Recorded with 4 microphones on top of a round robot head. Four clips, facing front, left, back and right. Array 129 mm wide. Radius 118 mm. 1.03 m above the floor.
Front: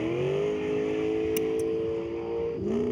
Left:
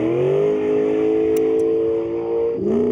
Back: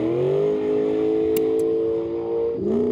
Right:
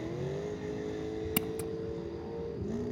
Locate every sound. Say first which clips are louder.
0.0 s a vehicle: left 20 dB, back 7 dB; 120° left
1.4 s scissors: left 19 dB, back 7 dB; 110° right